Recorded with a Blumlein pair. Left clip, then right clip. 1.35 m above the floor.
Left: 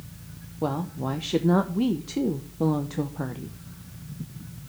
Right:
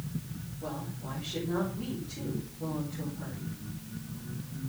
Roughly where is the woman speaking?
Ahead left.